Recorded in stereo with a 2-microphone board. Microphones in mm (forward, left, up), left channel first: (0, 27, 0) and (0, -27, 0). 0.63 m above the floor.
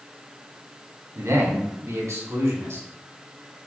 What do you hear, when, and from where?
1.1 s a man speaking: 75° right (ahead or behind), 5 m; by 2.9 s 70° right (ahead or behind), 6 m